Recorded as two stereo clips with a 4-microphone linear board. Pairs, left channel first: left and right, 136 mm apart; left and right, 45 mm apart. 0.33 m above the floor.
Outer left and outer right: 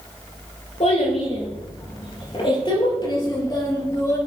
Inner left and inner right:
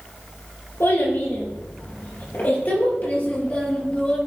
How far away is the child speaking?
About 5.5 m.